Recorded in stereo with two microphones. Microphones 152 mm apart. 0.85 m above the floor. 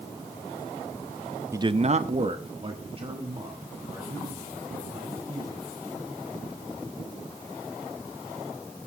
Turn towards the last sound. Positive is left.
turn(degrees=-30)  # may be behind; listen again after turning